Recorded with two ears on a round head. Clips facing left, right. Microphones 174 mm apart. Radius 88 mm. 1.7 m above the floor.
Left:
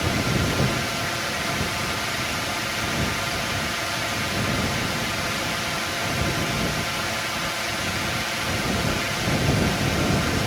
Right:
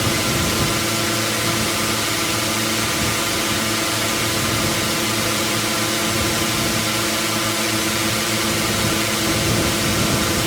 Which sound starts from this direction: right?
A drone, at 0.0 s.